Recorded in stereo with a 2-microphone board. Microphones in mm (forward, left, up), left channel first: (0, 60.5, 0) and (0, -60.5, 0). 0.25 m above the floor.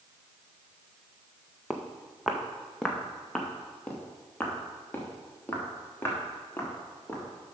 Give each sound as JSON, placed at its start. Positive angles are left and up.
{"t": 1.7, "sound": "footsteps", "side_deg": -5, "distance_m": 1.4}